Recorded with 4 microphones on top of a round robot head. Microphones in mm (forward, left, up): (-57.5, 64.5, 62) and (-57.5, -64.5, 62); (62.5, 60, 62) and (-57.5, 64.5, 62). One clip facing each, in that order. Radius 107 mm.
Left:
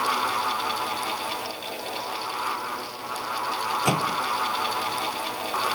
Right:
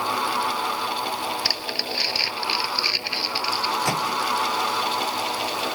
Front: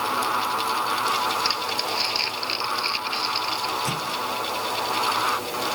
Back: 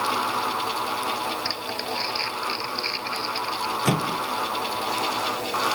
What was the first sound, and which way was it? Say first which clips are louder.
Crumpling: right 2 dB, front 3 dB; 80° right.